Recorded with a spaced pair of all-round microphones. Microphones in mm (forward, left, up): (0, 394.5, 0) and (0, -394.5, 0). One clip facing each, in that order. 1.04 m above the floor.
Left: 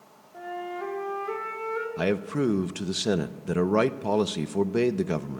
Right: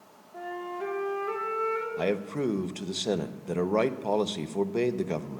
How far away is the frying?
I don't hear frying.